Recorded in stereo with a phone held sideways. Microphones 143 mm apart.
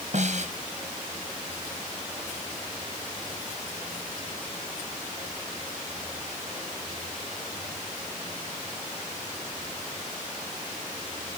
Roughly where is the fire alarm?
No fire alarm in this recording.